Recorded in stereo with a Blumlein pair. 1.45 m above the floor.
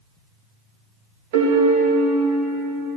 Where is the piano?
50° right, 1.8 m.